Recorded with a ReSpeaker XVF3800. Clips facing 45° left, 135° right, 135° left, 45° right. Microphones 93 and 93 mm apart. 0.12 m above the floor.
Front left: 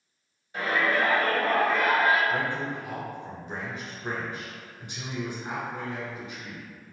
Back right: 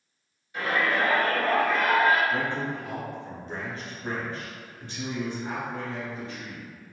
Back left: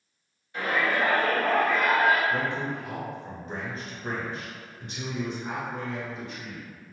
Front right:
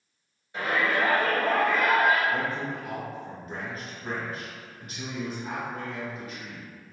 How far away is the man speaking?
About 1.4 m.